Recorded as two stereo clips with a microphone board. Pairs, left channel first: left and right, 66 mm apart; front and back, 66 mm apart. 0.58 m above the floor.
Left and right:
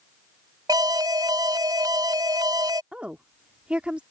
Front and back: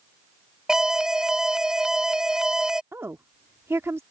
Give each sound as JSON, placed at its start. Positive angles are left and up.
{"t": 0.7, "sound": "an alarm", "azimuth_deg": -100}
{"t": 2.9, "sound": "a woman speaking", "azimuth_deg": -155}